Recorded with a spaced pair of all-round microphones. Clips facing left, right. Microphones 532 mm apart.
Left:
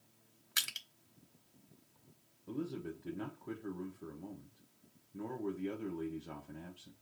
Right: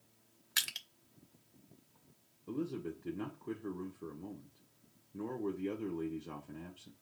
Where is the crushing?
15° right (ahead or behind), 0.7 m.